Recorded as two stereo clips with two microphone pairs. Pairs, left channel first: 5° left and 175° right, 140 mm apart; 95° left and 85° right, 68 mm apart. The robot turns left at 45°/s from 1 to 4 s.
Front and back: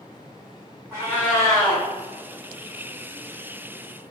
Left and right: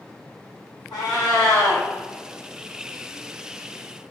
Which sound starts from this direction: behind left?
A cat meowing, at 0.9 s.